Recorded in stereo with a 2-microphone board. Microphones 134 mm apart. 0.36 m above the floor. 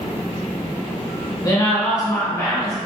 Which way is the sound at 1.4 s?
25° left (ahead or behind).